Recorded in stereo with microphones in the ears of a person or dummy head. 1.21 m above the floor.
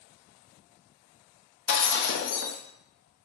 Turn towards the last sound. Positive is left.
turn(degrees=70)  # may be behind; listen again after turning